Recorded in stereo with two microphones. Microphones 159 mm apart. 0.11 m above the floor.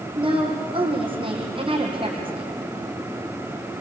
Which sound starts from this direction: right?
A woman speaking, at 0.1 s.